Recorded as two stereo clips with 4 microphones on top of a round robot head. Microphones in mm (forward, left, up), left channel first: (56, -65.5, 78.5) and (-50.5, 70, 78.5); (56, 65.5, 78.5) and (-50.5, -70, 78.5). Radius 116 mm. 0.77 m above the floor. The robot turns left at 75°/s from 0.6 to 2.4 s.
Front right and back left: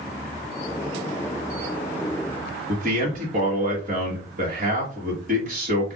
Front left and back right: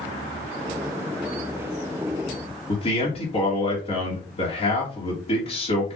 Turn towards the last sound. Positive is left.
turn(degrees=100)